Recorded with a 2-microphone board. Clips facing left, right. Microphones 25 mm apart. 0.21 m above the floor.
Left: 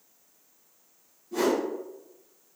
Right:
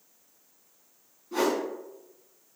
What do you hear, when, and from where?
1.3 s a whoosh: 55° right (ahead or behind), 1.7 m